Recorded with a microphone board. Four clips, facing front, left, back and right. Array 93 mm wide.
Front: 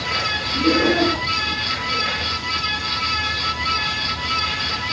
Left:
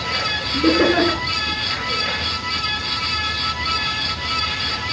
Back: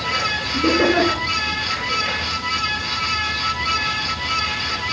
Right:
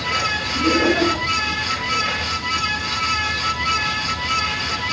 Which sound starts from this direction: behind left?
Laughter, at 0.5 s.